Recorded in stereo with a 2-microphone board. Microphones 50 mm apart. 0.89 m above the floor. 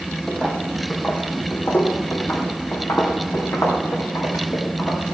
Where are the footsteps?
15° left (ahead or behind), 1.7 m; by 5.0 s 60° left (ahead or behind), 5 m.